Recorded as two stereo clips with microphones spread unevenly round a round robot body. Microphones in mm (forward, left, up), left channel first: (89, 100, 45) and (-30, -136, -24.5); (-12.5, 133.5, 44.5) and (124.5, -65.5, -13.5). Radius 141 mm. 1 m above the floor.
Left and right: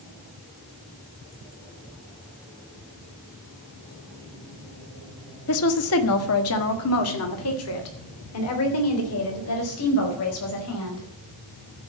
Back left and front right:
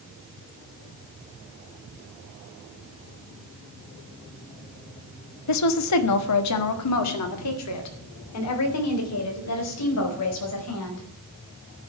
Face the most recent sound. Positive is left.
turn(degrees=105)